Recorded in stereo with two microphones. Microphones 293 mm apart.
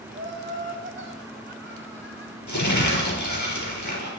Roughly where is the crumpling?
Left.